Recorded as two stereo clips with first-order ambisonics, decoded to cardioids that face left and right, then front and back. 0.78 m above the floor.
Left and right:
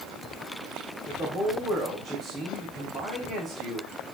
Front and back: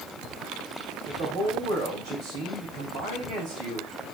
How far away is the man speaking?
About 4 m.